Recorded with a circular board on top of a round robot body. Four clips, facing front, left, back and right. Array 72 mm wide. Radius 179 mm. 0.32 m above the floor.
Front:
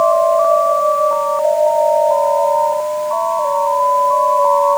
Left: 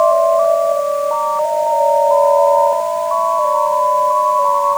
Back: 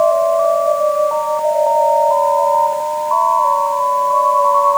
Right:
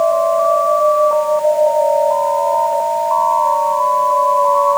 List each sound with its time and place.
Only background noise.